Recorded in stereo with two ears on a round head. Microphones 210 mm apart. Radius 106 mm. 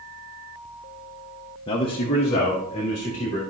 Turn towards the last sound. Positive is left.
turn(degrees=25)  # may be behind; listen again after turning